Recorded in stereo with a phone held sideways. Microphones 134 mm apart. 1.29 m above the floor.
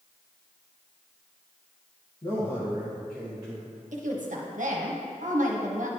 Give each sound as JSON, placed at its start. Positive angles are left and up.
{"t": 2.2, "sound": "a man speaking", "side_deg": 35, "distance_m": 1.4}
{"t": 3.9, "sound": "a woman speaking", "side_deg": -70, "distance_m": 1.1}